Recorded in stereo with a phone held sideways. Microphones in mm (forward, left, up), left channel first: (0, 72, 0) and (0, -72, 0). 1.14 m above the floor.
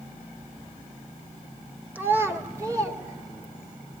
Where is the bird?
No bird in this recording.